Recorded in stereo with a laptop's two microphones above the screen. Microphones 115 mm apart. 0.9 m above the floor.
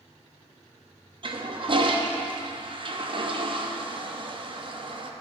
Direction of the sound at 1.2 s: 45° right (ahead or behind).